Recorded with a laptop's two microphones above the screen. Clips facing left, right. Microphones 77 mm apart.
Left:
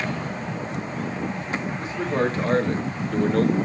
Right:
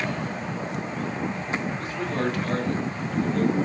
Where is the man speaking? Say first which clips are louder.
Left 3 dB; 20° left (ahead or behind), 1.9 m; by 3.5 s 60° left (ahead or behind), 1.0 m.